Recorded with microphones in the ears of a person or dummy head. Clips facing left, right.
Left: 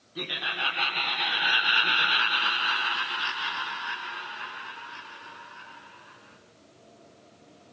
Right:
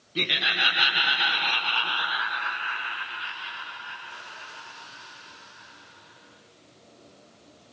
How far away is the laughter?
About 1.0 m.